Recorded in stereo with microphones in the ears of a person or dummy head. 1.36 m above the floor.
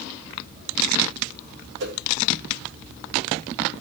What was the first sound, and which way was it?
A whoosh, 60° right (ahead or behind).